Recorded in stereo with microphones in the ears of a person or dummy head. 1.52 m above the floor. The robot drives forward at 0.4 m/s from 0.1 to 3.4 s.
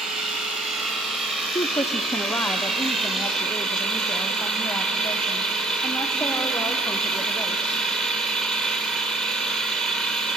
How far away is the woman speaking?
About 0.6 m.